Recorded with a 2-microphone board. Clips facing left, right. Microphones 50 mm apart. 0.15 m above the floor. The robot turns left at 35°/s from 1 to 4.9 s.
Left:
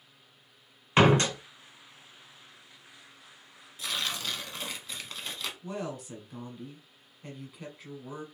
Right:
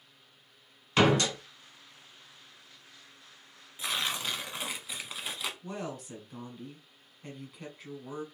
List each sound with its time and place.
1.0 s a door slam: 30° left (ahead or behind), 0.9 m
3.8 s tearing paper: 25° right (ahead or behind), 0.7 m; by 5.5 s 10° right (ahead or behind), 0.7 m
5.6 s a woman speaking: centre (ahead or behind), 1.1 m